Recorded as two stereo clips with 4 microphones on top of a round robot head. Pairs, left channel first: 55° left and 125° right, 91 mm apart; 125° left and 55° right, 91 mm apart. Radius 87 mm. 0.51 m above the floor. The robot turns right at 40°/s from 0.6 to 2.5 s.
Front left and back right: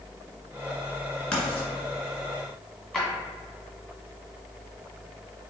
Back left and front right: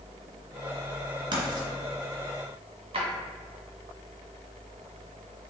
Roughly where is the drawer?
Ahead right.